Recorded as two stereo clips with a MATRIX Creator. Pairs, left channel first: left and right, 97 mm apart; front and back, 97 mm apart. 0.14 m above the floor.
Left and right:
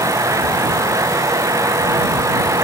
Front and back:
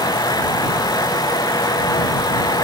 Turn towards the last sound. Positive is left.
No sound to turn to.